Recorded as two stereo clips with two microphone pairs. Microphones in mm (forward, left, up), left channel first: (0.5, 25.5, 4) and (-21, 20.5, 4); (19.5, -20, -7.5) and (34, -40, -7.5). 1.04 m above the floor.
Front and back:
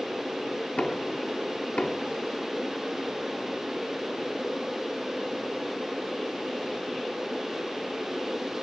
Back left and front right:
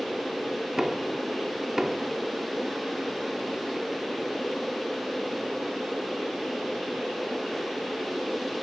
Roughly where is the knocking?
Ahead.